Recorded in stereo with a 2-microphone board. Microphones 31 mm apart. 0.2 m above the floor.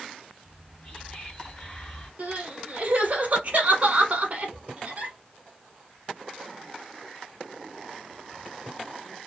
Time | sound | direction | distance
0.5 | whispering | 35° left (ahead or behind) | 2 m
2.2 | crying | 50° right (ahead or behind) | 1.0 m